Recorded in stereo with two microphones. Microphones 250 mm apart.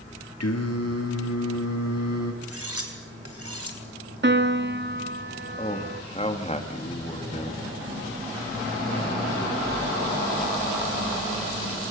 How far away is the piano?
About 1.2 m.